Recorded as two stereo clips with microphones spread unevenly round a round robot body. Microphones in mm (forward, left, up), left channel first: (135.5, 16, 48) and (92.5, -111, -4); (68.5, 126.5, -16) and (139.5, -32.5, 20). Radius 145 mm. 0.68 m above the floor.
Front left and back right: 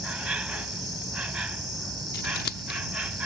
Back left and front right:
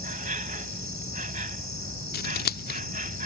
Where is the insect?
25° right.